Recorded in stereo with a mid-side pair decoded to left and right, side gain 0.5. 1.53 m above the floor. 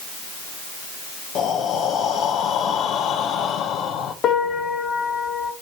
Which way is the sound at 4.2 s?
65° left.